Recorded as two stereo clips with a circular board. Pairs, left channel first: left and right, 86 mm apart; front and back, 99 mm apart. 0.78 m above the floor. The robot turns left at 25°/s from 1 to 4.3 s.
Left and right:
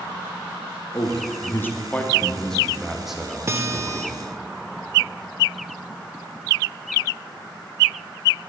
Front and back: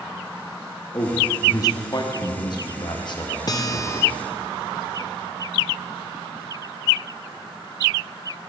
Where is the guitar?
40° right, 0.5 m; by 4.1 s 55° right, 0.5 m.